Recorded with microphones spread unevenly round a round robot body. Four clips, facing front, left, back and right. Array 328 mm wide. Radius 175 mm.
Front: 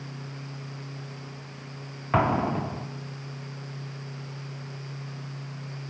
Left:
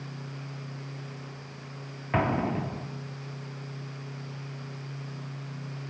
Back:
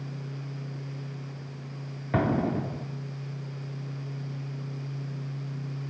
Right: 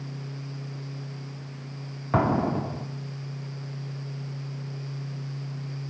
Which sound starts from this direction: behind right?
An explosion, at 2.1 s.